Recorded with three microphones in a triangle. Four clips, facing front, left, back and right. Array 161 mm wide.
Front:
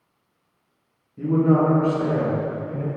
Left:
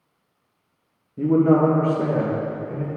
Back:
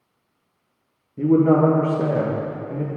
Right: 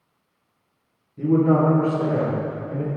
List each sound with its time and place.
1.2 s a man speaking: 135° left, 2.0 m; by 2.9 s 165° left, 2.5 m